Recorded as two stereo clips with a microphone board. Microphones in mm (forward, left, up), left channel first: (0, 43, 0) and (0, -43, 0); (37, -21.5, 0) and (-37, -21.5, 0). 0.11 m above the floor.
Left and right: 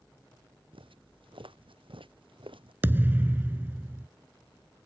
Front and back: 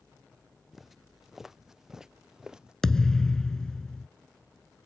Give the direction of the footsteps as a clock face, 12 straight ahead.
3 o'clock.